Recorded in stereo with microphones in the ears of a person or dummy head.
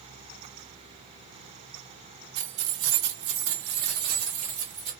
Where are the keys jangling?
80° right, 1.2 m; by 4.9 s 30° right (ahead or behind), 1.3 m.